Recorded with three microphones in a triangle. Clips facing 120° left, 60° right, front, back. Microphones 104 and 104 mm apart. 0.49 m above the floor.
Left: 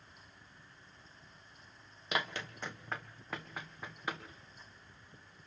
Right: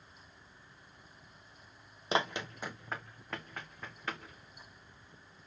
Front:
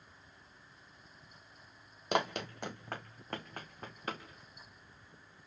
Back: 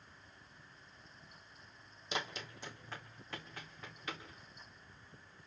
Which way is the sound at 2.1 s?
10° right.